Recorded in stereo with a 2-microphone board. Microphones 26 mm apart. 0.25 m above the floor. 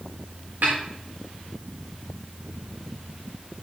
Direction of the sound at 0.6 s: 80° right.